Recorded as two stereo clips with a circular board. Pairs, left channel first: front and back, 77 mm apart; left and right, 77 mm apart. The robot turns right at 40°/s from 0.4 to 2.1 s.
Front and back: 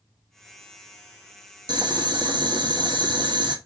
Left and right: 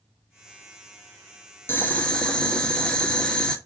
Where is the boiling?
150° left, 1.1 m; by 3.6 s 170° left, 1.1 m.